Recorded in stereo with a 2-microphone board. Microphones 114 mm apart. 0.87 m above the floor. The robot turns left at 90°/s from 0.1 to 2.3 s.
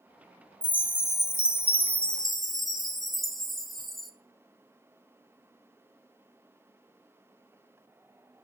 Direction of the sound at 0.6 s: 10° left (ahead or behind).